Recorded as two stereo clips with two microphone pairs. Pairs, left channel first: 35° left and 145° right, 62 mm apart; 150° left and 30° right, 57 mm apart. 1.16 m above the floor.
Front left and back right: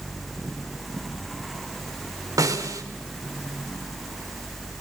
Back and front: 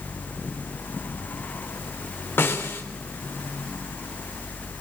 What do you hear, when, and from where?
2.4 s a snare drum: 165° right, 4 m